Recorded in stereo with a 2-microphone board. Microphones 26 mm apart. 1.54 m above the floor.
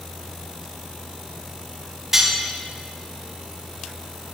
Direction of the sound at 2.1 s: 20° right (ahead or behind).